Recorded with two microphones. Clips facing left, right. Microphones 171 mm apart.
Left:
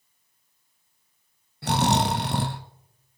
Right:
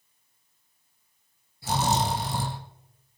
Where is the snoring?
70° left (ahead or behind), 1.2 m.